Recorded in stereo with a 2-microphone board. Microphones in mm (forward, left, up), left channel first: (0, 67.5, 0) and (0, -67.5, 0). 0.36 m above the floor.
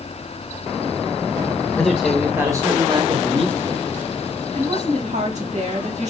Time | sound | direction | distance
1.8 | a man speaking | centre (ahead or behind) | 1.2 m
4.5 | a woman speaking | 60° right (ahead or behind) | 2.5 m